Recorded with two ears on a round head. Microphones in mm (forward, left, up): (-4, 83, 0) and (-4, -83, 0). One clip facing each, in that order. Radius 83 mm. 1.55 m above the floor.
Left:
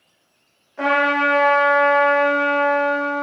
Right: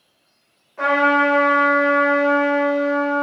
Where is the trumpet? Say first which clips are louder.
Right 2 dB; 5° left (ahead or behind), 1.6 m.